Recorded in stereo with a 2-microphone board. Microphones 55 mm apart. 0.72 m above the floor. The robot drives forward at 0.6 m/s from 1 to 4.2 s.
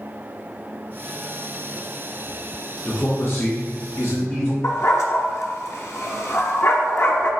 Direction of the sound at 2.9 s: 40° left (ahead or behind).